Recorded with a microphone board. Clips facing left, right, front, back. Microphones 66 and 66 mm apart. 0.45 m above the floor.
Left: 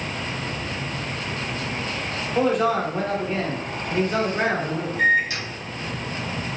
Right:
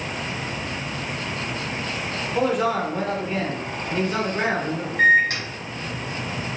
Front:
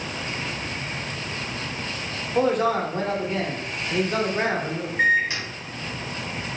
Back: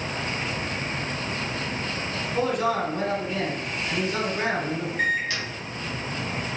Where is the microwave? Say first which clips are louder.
Right 4 dB, front 6 dB; 60° right, 1.8 m.